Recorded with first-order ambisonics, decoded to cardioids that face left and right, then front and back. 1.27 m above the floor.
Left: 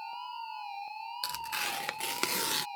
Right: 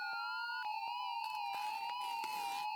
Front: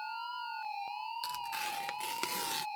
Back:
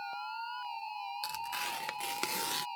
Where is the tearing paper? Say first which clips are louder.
Left 5 dB, back 1 dB; 95° left.